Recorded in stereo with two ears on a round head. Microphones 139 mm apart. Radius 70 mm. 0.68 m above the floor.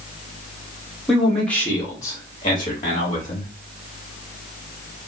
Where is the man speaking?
Centre (ahead or behind), 1.0 m; by 3.5 s 40° left (ahead or behind), 1.2 m.